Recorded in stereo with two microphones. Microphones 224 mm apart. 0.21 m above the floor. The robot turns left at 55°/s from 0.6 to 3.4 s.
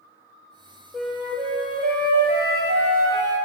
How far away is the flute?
About 1.9 m.